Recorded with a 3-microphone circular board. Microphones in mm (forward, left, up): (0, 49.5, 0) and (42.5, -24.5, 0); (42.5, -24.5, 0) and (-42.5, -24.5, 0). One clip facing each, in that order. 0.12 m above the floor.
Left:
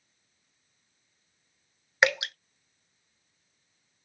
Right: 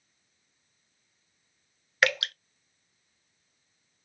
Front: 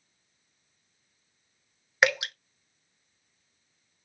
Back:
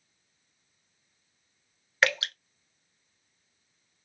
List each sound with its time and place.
2.0 s dripping: 65° left, 0.8 m